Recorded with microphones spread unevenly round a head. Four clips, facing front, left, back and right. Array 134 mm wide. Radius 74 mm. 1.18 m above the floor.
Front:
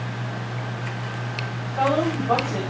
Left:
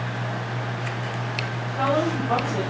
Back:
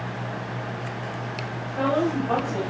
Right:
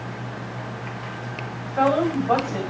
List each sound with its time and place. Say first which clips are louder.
1.6 s a woman speaking: right 3 dB, front 2 dB; 70° right, 2 m